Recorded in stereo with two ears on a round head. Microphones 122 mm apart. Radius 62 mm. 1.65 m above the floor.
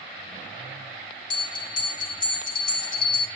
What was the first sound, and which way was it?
A bell, 35° left (ahead or behind).